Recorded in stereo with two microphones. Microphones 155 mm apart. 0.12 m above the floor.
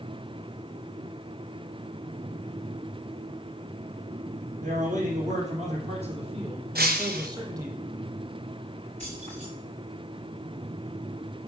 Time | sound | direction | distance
4.6 | a man speaking | 60° right (ahead or behind) | 4 m
6.8 | breaking glass | 90° right | 1.2 m
9.0 | keys jangling | 50° right (ahead or behind) | 7.5 m